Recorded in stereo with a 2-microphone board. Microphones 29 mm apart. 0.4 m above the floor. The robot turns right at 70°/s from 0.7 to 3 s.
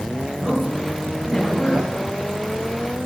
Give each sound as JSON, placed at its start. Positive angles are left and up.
{"t": 0.4, "sound": "a man speaking", "azimuth_deg": -40, "distance_m": 3.5}